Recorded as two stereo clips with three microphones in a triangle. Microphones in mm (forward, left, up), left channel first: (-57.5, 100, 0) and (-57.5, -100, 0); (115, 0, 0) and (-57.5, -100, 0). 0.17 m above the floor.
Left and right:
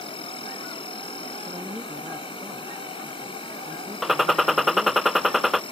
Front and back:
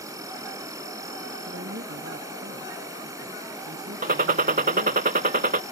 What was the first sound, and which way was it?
An insect, 145° left.